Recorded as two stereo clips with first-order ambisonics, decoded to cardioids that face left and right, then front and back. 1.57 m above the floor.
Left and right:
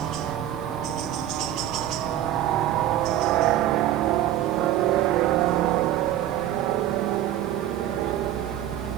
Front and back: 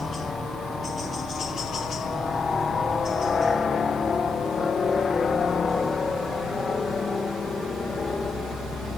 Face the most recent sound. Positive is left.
turn(degrees=-70)